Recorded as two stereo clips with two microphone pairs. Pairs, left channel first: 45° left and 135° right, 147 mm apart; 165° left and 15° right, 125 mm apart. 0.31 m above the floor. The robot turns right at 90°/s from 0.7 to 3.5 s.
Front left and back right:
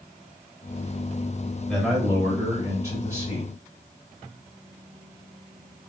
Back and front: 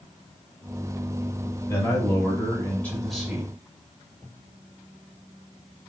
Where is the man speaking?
125° left, 1.2 m; by 3.5 s 70° right, 1.2 m.